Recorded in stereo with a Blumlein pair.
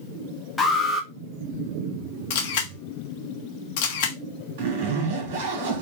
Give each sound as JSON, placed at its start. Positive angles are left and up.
{"t": 0.6, "sound": "an alarm", "azimuth_deg": 10, "distance_m": 1.4}
{"t": 2.3, "sound": "a camera shutter", "azimuth_deg": 50, "distance_m": 1.2}
{"t": 4.6, "sound": "a zipper", "azimuth_deg": -50, "distance_m": 2.0}